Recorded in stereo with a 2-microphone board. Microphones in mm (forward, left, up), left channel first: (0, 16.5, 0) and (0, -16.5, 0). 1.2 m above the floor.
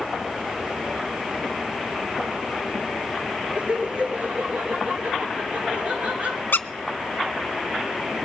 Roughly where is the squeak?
Left.